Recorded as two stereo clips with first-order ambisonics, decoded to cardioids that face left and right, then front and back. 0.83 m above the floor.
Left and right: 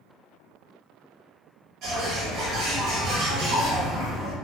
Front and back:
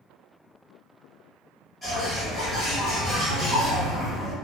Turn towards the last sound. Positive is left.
turn(degrees=-80)